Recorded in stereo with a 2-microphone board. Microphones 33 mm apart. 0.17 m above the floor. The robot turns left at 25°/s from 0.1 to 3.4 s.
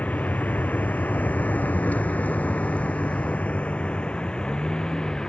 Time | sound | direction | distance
0.0 | a vehicle | 55° left (ahead or behind) | ?